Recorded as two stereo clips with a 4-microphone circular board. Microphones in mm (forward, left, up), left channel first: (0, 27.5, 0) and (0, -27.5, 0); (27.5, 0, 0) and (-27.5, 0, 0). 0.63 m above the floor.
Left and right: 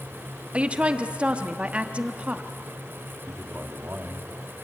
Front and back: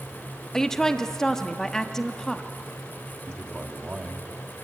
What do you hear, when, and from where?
0.5 s a woman speaking: 65° right, 1.0 m
3.3 s a man speaking: 110° right, 1.4 m